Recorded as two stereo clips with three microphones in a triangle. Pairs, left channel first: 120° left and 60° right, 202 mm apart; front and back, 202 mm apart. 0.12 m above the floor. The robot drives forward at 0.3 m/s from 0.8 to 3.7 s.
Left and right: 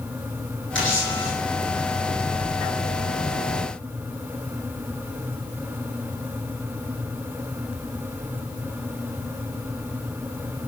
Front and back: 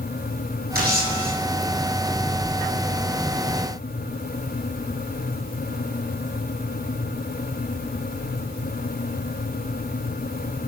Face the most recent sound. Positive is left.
turn(degrees=140)